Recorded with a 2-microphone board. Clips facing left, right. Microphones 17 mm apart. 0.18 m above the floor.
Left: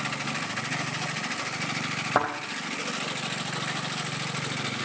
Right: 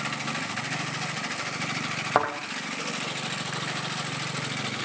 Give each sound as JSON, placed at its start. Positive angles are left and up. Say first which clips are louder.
{"t": 2.1, "sound": "a thud", "louder": "right 1 dB", "side_deg": -25, "distance_m": 3.5}